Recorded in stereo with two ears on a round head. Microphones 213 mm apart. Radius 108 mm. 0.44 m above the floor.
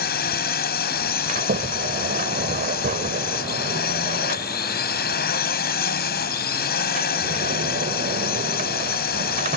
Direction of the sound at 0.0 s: 45° left (ahead or behind).